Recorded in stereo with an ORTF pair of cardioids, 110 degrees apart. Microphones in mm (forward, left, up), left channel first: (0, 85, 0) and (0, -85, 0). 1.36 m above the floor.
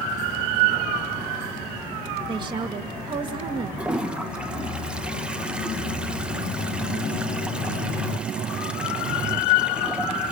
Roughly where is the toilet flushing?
Ahead.